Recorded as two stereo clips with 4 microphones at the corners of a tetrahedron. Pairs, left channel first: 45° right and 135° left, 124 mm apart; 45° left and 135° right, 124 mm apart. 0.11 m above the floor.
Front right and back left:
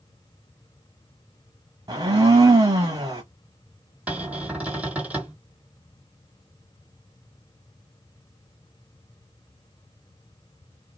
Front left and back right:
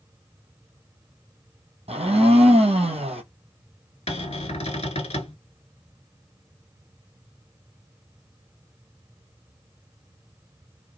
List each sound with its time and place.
1.9 s a blender: 165° right, 1.0 m
4.1 s a cupboard door: 60° left, 0.7 m